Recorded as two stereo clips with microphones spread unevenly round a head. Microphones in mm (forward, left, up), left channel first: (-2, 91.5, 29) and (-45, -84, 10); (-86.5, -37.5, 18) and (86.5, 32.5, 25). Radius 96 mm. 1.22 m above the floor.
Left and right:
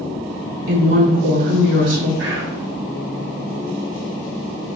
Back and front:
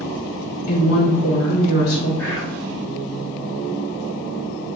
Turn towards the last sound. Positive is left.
turn(degrees=-80)